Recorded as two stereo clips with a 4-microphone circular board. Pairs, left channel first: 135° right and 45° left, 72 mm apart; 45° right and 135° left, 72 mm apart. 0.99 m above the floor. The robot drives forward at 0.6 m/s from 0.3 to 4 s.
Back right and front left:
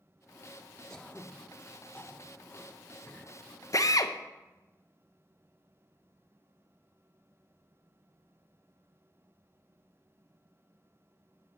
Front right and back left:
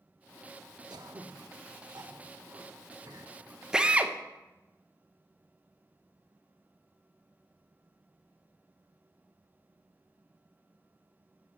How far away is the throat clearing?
About 0.7 m.